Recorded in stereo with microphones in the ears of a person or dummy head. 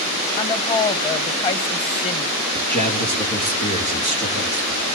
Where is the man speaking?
40° left (ahead or behind), 3.5 m.